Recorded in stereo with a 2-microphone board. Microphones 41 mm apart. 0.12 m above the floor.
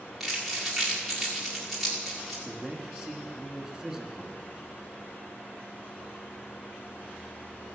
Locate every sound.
0.2 s crumpling: 5° left (ahead or behind), 5.5 m
2.5 s a man speaking: 10° right (ahead or behind), 1.4 m